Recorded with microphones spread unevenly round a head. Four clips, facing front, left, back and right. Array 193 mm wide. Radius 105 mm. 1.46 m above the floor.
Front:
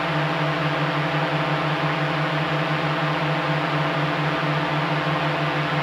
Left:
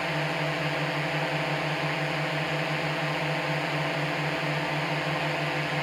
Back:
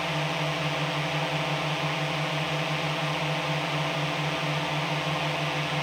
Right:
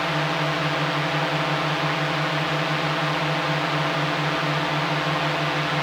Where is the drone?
20° right.